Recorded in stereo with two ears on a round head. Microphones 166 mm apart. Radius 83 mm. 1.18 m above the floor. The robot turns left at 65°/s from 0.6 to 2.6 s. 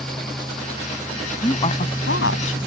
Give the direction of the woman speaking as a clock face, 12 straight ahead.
7 o'clock.